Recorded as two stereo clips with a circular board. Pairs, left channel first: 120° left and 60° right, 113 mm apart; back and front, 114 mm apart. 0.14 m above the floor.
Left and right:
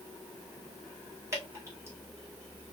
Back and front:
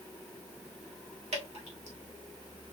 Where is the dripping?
5° left, 2.5 m.